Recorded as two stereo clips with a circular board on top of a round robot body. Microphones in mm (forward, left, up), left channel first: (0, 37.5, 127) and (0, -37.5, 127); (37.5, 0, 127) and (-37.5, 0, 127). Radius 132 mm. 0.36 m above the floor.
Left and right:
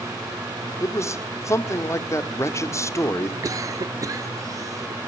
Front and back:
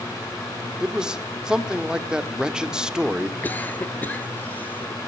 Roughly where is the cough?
Ahead right.